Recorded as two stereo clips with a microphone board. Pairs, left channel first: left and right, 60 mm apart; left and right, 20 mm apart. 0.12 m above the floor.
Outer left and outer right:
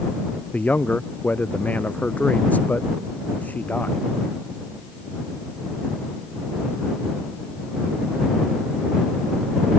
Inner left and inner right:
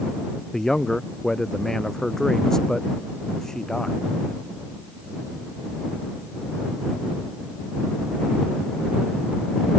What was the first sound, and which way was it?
A man speaking, 25° left (ahead or behind).